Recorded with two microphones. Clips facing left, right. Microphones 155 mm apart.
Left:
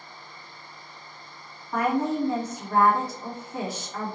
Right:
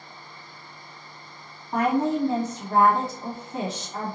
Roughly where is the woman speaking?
Right.